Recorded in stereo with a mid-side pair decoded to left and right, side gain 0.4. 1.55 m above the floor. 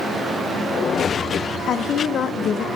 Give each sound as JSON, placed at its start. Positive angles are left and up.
{"t": 1.7, "sound": "a woman speaking", "azimuth_deg": 65, "distance_m": 0.6}